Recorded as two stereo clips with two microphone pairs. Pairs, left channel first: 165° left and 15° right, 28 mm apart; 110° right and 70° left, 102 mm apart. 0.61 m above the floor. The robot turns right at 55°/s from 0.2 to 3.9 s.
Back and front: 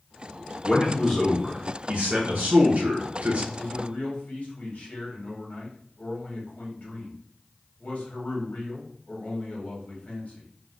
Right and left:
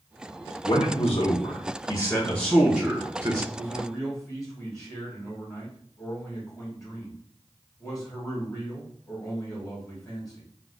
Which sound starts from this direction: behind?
A man speaking, at 3.5 s.